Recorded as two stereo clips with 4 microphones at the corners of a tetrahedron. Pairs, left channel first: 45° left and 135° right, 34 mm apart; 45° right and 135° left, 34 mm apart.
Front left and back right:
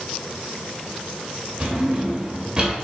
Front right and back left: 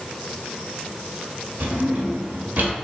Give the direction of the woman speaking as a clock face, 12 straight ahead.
I don't hear a woman speaking.